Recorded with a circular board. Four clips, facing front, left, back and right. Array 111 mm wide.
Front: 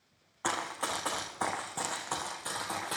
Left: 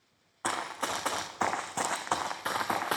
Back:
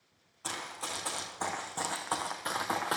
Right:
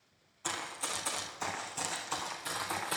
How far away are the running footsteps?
About 1.2 m.